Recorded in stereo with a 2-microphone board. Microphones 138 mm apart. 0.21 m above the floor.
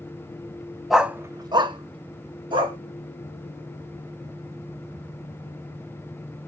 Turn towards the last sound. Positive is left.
turn(degrees=-35)  # may be behind; listen again after turning